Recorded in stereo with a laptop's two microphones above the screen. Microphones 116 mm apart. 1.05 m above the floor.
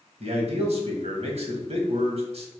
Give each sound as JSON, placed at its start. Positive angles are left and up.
{"t": 0.2, "sound": "a man speaking", "side_deg": -65, "distance_m": 1.2}